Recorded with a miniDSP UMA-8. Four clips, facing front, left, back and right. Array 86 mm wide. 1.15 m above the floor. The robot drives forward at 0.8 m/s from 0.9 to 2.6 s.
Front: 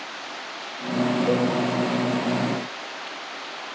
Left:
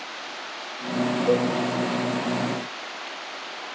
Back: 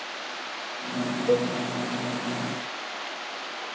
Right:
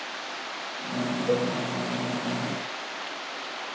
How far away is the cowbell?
About 3 m.